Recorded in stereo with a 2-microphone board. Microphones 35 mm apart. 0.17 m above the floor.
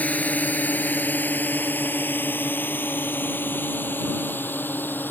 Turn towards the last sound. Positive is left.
turn(degrees=70)  # may be behind; listen again after turning